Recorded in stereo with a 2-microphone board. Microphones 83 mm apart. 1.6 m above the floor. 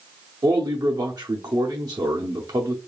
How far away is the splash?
I don't hear a splash.